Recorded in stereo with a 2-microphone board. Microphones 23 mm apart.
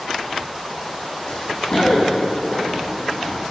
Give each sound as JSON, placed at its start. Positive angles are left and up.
{"t": 1.3, "sound": "running footsteps", "side_deg": 55, "distance_m": 3.0}